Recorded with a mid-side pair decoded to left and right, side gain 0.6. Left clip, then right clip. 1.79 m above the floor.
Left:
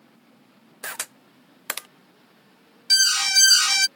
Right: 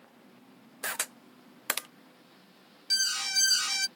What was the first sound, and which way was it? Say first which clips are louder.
A camera shutter: left 1 dB; straight ahead.